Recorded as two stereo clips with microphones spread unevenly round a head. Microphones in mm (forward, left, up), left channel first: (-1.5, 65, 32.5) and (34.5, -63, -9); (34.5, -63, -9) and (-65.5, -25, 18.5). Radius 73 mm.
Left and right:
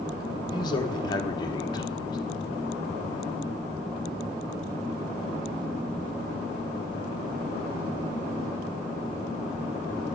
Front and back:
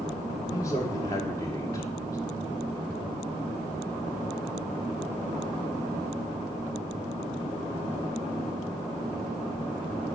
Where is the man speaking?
40° left, 1.0 m.